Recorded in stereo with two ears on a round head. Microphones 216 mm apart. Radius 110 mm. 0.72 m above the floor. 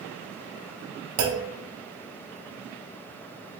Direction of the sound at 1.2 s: 60° right (ahead or behind).